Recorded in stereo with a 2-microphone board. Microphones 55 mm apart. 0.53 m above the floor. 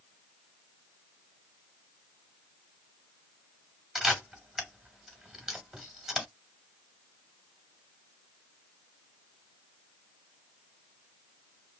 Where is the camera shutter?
10° right (ahead or behind), 1.5 m.